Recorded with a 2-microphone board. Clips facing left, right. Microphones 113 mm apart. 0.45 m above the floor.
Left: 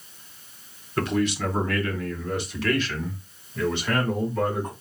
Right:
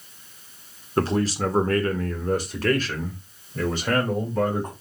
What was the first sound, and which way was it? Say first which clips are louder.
A man speaking: right 2 dB; 30° right (ahead or behind).